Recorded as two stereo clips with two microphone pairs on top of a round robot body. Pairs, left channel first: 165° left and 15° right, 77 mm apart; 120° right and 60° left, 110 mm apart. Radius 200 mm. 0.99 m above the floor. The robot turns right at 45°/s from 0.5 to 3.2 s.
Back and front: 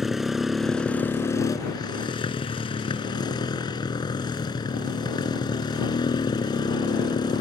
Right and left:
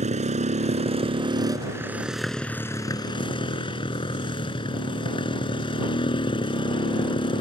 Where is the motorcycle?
75° left; by 7.4 s 165° right.